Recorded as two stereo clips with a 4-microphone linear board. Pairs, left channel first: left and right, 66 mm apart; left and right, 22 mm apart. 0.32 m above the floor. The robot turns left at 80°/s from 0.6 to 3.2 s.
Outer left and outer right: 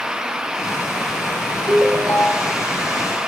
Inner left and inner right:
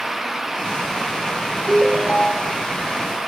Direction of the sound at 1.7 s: 55° right.